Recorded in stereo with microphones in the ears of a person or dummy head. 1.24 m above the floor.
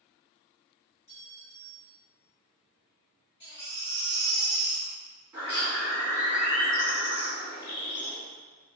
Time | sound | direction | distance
1.1 | a clink | 15° left (ahead or behind) | 1.4 m
3.4 | a baby crying | 20° left (ahead or behind) | 1.2 m
5.3 | a bird | 20° right (ahead or behind) | 1.9 m